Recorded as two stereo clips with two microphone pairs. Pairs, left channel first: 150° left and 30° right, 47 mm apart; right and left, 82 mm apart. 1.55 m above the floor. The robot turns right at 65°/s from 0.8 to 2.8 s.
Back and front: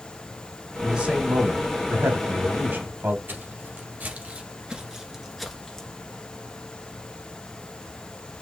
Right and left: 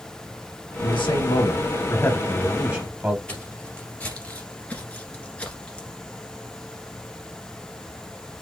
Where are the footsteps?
20° right, 2.5 m; by 5.9 s 155° right, 1.6 m.